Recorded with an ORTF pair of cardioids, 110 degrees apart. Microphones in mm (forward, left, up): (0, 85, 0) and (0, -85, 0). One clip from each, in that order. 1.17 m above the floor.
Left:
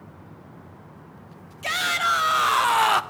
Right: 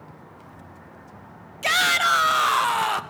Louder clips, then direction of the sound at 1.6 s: Right 4 dB; 35° right.